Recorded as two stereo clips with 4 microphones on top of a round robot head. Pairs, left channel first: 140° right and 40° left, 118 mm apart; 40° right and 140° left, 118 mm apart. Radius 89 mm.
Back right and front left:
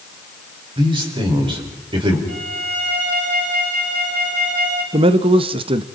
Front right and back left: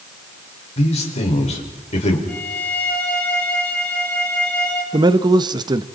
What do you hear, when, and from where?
0.8 s a man speaking: 10° right, 4.5 m
2.3 s a violin: 40° left, 7 m
4.9 s a man speaking: 85° left, 0.9 m